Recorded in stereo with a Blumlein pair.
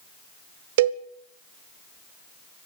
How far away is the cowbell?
About 1.2 m.